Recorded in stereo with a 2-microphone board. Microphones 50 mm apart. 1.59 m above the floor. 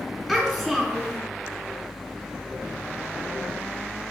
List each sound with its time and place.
0.3 s a child speaking: 5° left (ahead or behind), 3 m